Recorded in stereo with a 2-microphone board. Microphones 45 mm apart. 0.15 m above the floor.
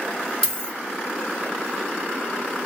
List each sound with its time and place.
0.4 s a dropped coin: 15° left (ahead or behind), 2 m